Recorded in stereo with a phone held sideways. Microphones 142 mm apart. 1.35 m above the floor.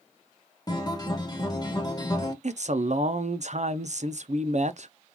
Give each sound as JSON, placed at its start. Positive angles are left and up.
{"t": 0.7, "sound": "a guitar", "side_deg": 30, "distance_m": 1.1}
{"t": 2.4, "sound": "a man speaking", "side_deg": -55, "distance_m": 0.5}